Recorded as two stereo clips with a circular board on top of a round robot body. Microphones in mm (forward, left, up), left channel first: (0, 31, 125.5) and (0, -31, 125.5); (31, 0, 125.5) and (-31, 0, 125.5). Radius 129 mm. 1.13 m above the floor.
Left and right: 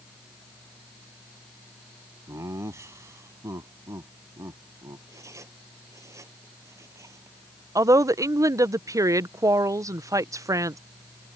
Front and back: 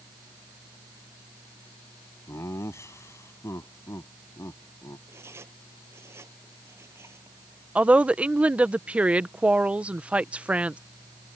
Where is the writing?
130° right.